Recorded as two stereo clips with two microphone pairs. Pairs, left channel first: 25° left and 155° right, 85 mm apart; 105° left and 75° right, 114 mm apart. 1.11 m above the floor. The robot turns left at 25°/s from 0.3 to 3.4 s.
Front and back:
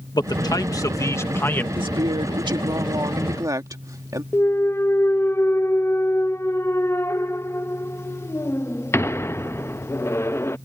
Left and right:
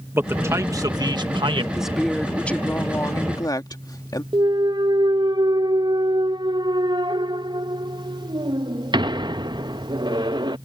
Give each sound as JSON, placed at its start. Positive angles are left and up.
{"t": 0.1, "sound": "a man speaking", "azimuth_deg": -5}
{"t": 1.8, "sound": "a woman speaking", "azimuth_deg": -160}
{"t": 4.3, "sound": "a clunk", "azimuth_deg": -30}